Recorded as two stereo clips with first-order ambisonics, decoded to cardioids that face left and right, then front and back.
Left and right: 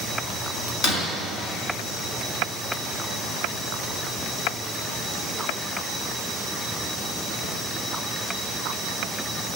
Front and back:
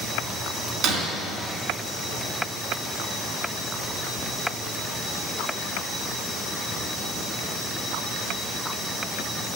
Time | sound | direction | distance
0.8 | breaking glass | 135° left | 3 m